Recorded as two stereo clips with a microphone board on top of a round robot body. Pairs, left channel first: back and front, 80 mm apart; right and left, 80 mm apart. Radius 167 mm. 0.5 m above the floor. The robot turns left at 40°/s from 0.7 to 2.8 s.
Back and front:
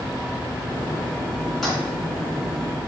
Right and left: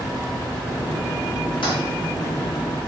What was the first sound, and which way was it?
A toilet flushing, 90° right.